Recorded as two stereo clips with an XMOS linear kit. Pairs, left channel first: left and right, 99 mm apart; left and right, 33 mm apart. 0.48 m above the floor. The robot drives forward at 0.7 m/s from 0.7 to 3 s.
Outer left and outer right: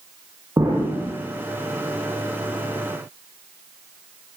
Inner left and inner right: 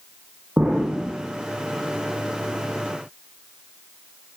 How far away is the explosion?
About 9.5 m.